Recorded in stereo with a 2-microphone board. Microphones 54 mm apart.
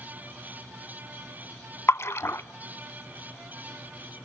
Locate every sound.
1.9 s a splash: 55° left (ahead or behind), 0.6 m